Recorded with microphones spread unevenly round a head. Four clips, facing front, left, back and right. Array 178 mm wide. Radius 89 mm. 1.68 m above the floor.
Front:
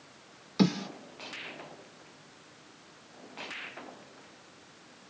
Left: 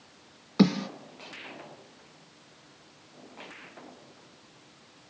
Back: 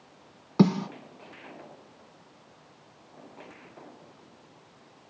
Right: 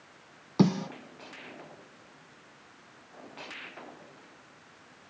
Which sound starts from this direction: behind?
A snare drum, at 0.6 s.